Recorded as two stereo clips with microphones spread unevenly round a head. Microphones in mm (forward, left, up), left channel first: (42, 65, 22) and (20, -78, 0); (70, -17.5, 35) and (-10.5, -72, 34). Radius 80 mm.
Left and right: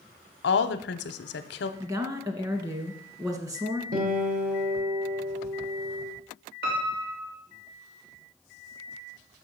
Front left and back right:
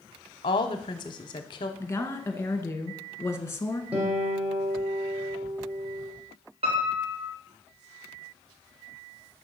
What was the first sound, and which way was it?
A woman speaking, 85° left.